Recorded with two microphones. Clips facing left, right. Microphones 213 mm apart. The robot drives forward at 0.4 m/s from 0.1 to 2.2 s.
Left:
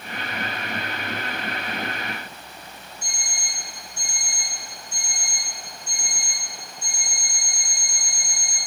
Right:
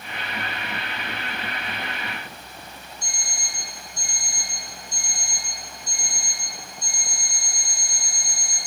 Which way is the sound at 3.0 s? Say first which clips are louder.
Right 1 dB; 40° right (ahead or behind).